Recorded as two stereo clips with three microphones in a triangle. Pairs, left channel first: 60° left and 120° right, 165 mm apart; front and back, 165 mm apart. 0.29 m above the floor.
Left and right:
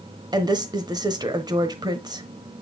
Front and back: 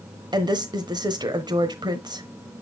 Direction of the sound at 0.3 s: 150° right.